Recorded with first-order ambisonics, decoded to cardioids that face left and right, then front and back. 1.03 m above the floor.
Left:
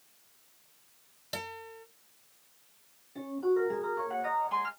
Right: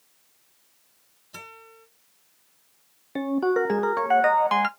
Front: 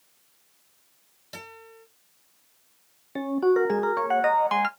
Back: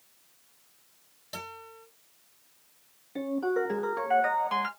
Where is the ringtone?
60° right, 0.6 m.